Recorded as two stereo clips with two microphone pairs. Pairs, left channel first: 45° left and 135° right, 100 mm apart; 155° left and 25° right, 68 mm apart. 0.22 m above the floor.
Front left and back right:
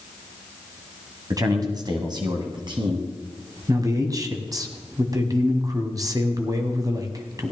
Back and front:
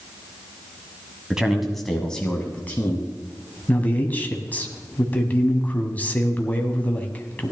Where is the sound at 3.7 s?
155° right, 1.4 m.